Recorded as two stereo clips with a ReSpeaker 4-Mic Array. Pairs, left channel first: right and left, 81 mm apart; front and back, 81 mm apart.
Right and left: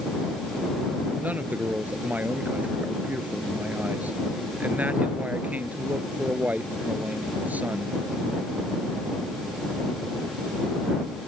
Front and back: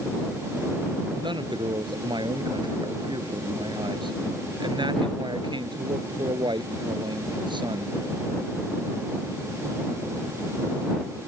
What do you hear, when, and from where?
1.2 s a man speaking: 160° left